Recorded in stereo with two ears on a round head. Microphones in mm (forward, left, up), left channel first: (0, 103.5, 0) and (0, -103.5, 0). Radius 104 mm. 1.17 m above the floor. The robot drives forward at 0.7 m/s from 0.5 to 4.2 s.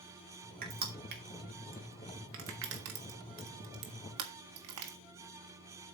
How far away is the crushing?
About 3 m.